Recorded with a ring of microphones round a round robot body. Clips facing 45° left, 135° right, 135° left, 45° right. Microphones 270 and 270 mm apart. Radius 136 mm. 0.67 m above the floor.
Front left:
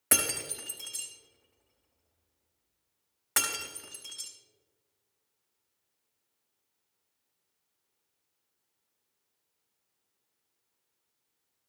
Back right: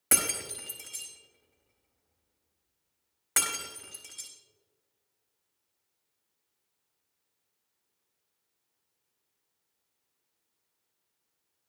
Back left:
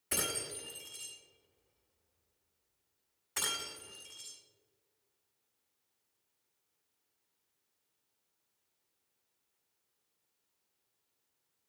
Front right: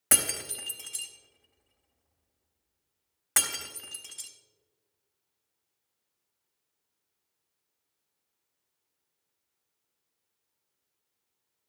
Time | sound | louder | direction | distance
0.1 | breaking glass | even, front right 3 dB | 45° right | 4 m